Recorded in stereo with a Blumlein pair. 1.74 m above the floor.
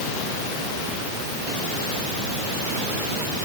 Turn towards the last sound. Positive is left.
No sound to turn to.